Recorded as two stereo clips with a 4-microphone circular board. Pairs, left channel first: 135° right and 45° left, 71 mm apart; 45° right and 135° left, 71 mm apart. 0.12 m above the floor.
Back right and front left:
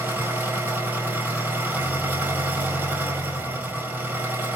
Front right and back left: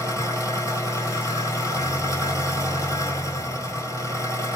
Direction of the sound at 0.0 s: 15° right.